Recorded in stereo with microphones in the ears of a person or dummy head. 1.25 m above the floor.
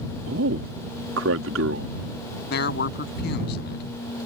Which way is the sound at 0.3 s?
80° right.